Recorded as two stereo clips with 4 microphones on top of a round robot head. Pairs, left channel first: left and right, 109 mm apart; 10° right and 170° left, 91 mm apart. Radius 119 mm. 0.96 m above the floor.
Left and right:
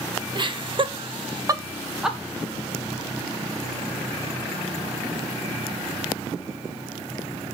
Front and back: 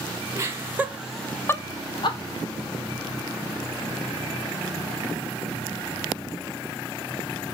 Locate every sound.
0.3 s laughter: 130° right, 2.0 m; by 2.2 s straight ahead, 1.5 m